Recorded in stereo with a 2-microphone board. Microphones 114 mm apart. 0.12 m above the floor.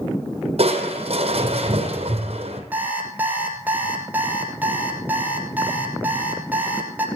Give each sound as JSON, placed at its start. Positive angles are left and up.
{"t": 0.6, "sound": "crushing", "side_deg": -65, "distance_m": 2.0}
{"t": 2.7, "sound": "an alarm clock", "side_deg": -15, "distance_m": 1.9}